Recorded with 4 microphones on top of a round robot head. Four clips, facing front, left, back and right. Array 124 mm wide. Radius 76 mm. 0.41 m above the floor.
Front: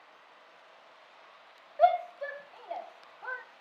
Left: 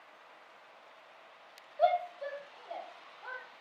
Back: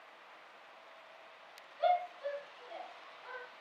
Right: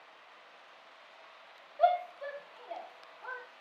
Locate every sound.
1.8 s a shout: 5° left, 4 m